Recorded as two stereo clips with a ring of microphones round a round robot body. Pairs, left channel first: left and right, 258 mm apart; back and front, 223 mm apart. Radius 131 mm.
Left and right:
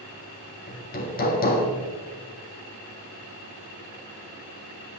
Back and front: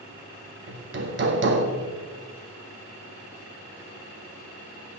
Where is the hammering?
35° left, 1.7 m.